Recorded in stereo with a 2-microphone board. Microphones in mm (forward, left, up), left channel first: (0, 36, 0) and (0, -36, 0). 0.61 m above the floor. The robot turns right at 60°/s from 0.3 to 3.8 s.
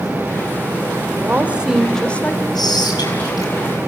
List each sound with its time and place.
1.2 s a woman speaking: 40° right, 2.5 m; by 2.5 s 40° left, 2.5 m
2.5 s whispering: 70° left, 5 m; by 3.9 s 145° left, 5 m